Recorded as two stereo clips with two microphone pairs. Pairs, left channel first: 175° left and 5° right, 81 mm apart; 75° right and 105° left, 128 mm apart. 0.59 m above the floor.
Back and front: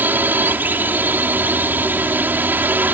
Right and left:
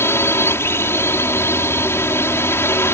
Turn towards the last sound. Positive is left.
turn(degrees=-35)